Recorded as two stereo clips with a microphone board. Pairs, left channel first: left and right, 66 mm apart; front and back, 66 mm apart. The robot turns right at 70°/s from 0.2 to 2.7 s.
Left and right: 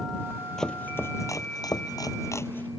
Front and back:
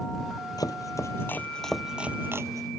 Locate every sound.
0.6 s chopping: 5° left; by 2.7 s 155° left